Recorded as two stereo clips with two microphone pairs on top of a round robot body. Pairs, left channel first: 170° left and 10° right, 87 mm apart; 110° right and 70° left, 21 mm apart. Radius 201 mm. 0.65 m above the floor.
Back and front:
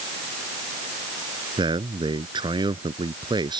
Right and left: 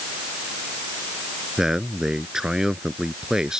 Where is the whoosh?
No whoosh in this recording.